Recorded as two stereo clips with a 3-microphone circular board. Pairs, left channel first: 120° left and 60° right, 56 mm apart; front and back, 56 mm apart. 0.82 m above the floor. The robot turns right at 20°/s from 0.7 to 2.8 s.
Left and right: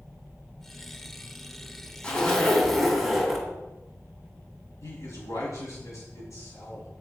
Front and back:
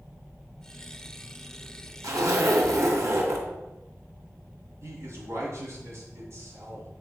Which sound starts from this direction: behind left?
A man speaking, at 4.8 s.